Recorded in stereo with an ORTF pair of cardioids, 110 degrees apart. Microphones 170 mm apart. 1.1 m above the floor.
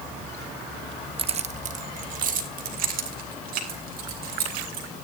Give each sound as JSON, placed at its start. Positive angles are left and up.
{"t": 1.2, "sound": "keys jangling", "azimuth_deg": -35, "distance_m": 0.8}